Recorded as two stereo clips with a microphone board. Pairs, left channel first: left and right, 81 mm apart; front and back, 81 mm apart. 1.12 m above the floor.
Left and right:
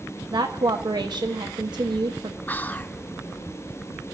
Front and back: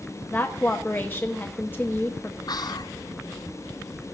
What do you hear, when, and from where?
0.3 s a woman speaking: 65° right, 1.0 m
2.5 s whispering: 25° left, 0.7 m